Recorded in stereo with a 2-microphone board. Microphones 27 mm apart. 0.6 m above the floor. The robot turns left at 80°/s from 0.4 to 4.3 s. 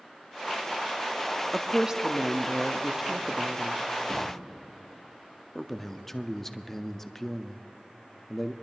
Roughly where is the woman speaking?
Centre.